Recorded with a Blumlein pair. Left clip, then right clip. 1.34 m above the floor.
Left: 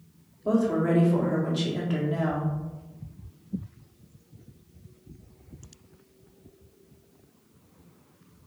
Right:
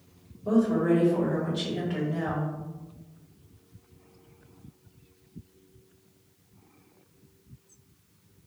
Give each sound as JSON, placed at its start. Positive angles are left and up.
{"t": 0.5, "sound": "a woman speaking", "azimuth_deg": 15, "distance_m": 1.6}